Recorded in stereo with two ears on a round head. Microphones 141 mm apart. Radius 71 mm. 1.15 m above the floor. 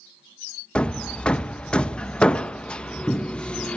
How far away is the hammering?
About 0.5 m.